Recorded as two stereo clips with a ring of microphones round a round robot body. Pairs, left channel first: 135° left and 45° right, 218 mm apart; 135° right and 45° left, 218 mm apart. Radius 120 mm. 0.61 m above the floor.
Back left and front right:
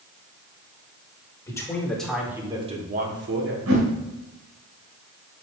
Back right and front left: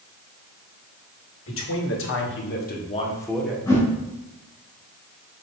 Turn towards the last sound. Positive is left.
turn(degrees=-60)